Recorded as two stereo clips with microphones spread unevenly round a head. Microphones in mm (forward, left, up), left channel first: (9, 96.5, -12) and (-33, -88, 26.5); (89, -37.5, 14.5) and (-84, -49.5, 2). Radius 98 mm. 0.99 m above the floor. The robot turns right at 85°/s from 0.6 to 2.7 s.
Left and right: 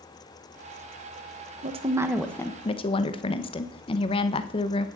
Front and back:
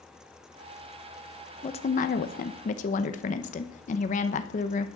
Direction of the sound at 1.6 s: 50° right.